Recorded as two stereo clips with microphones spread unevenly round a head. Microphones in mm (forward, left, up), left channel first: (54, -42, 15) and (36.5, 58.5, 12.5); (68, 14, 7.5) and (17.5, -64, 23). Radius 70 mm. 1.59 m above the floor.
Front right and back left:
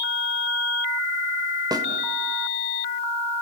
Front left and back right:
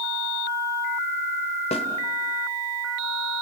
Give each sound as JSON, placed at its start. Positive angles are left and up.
{"t": 1.7, "sound": "a snare drum", "azimuth_deg": 50, "distance_m": 2.5}